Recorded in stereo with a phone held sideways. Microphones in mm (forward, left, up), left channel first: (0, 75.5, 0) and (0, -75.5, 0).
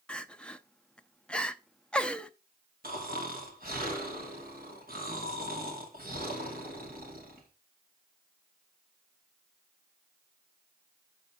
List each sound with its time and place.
0.1 s crying: 5° left (ahead or behind), 0.5 m
2.8 s snoring: 75° right (ahead or behind), 2.5 m